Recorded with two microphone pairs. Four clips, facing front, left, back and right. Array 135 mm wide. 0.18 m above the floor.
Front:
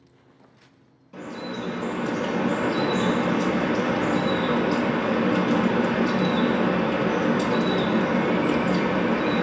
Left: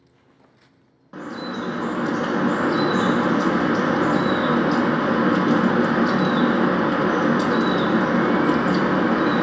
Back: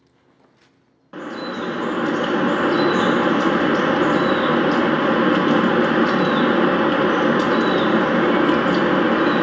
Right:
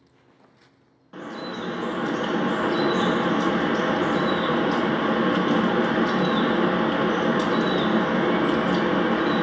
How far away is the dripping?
About 0.9 m.